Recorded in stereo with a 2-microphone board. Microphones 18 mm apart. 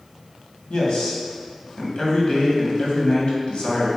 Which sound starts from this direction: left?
A man speaking, at 0.7 s.